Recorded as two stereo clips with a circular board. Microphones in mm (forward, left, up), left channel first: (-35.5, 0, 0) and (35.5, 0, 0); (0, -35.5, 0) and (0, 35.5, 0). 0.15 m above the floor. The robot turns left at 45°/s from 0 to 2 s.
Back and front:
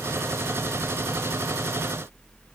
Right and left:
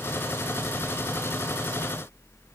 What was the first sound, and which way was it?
Only background noise.